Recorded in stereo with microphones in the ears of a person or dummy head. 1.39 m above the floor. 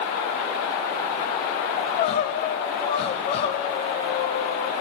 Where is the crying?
30° left (ahead or behind), 0.6 m.